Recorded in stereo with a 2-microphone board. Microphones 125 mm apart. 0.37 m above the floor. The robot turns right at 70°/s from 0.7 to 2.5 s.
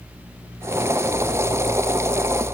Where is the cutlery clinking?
No cutlery clinking in this recording.